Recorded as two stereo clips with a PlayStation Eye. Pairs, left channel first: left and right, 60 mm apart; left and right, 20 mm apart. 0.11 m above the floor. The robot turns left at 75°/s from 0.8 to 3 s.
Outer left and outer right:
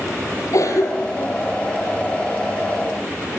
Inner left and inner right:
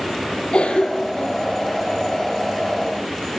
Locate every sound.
0.5 s a cough: 65° left (ahead or behind), 4.5 m; by 1.4 s 40° left (ahead or behind), 4.5 m